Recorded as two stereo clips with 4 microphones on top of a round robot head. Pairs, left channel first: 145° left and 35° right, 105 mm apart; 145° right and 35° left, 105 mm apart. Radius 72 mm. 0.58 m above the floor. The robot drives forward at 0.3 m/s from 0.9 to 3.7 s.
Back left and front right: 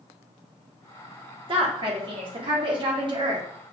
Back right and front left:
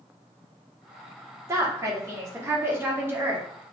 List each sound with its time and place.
1.5 s a woman speaking: 20° right, 1.9 m; by 3.5 s 30° right, 1.5 m